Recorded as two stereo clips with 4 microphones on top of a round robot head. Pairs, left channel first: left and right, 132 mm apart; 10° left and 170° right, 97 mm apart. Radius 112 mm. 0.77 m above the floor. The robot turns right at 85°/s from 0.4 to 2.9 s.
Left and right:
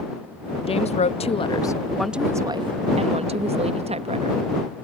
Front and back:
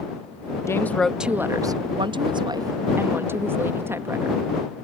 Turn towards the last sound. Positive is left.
turn(degrees=-110)